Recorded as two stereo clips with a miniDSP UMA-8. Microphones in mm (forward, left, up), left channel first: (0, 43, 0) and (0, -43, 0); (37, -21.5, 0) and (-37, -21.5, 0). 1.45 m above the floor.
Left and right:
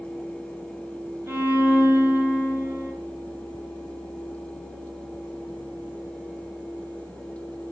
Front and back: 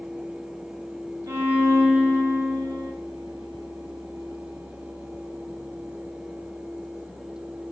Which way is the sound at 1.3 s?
145° right.